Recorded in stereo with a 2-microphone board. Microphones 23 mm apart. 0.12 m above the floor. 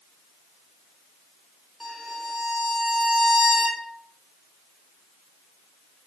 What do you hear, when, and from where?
1.8 s a violin: 5° left (ahead or behind), 1.2 m